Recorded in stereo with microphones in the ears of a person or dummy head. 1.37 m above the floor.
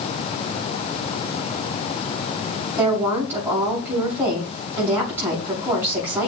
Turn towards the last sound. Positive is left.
turn(degrees=-25)  # may be behind; listen again after turning